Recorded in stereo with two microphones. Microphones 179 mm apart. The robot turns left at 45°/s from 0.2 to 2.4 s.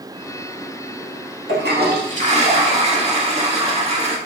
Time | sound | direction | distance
1.5 | a toilet flushing | 105° right | 0.7 m